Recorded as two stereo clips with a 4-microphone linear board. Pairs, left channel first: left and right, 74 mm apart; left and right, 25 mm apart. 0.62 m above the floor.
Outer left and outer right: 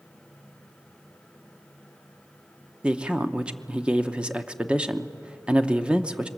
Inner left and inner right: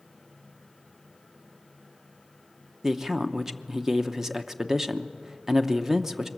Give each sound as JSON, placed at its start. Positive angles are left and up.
{"t": 2.8, "sound": "a man speaking", "side_deg": -15, "distance_m": 0.8}